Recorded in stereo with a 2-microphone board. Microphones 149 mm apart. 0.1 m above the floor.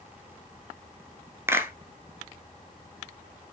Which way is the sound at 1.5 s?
15° right (ahead or behind).